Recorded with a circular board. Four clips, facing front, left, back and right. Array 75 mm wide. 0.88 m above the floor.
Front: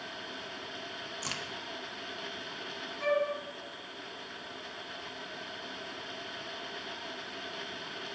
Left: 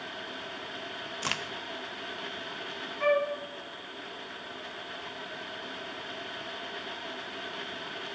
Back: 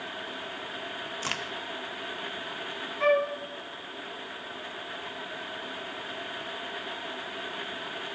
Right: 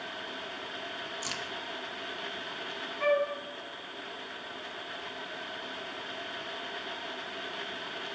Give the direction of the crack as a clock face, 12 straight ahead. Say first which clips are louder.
Left 8 dB, back 6 dB; 8 o'clock.